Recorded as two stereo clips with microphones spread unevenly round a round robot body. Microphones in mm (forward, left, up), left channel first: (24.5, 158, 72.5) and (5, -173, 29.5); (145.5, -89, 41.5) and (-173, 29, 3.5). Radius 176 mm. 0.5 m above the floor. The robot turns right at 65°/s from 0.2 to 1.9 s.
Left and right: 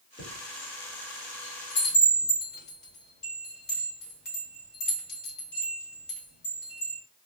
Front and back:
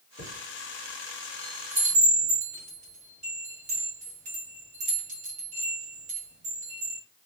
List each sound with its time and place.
0.2 s a chime: 20° left, 1.4 m; by 7.0 s 130° left, 1.4 m